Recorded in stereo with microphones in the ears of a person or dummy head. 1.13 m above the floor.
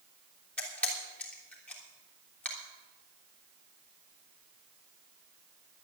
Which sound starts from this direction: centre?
A camera shutter, at 0.6 s.